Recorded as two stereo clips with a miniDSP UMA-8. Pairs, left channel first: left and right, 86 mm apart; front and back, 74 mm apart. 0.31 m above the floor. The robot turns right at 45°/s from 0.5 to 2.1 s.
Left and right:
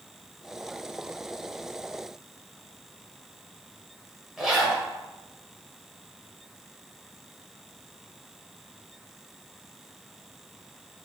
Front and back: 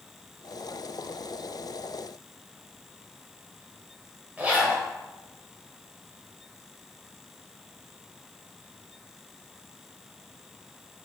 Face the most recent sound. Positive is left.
turn(degrees=-165)